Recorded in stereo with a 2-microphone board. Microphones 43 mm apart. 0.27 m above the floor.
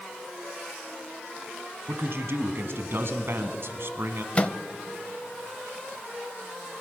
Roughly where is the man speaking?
Right.